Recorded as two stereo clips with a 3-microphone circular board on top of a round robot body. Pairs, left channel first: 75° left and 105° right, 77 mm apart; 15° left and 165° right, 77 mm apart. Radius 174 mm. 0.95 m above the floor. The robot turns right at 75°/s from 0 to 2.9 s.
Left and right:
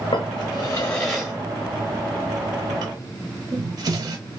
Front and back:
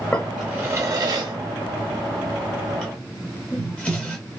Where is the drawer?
85° left, 0.8 m; by 4.2 s 65° right, 0.8 m.